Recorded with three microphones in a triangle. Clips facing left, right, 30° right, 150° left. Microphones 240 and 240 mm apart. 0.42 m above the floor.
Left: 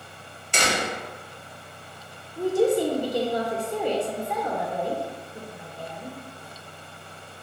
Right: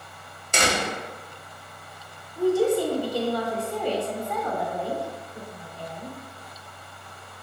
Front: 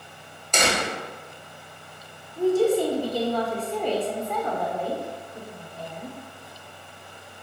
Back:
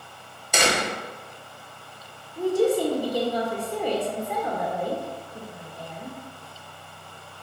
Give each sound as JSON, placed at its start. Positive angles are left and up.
{"t": 0.5, "sound": "a door slam", "azimuth_deg": -130, "distance_m": 1.4}
{"t": 2.4, "sound": "a woman speaking", "azimuth_deg": 105, "distance_m": 0.9}